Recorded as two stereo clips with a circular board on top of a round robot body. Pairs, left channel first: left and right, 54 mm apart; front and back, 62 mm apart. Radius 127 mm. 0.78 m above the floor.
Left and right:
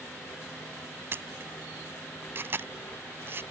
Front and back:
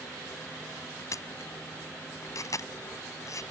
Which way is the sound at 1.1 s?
40° right.